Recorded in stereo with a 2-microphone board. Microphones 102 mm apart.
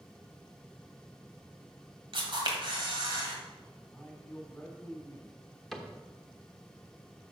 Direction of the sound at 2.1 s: 55° right (ahead or behind).